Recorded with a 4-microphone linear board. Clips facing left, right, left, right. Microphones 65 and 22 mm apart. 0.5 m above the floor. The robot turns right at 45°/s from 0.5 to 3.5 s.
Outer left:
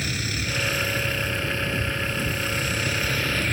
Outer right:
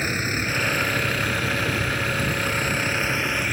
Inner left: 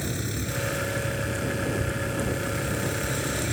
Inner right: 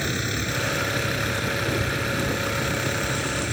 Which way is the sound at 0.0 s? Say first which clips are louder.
Outer right 4 dB, inner right 5 dB; 145° right.